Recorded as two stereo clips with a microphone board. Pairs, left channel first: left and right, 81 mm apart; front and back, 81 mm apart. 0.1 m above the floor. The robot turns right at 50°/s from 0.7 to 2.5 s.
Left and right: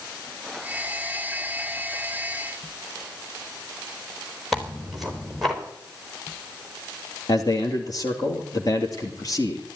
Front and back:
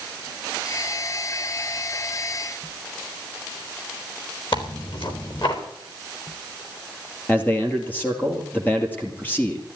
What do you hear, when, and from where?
4.5 s tearing paper: straight ahead, 3.5 m
7.3 s a man speaking: 65° left, 2 m